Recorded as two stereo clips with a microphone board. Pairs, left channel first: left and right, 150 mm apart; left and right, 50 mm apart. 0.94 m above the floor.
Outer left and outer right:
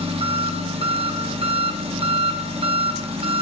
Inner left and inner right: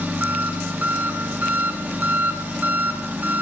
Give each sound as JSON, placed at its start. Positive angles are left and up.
{"t": 0.0, "sound": "an engine running", "side_deg": -40, "distance_m": 1.2}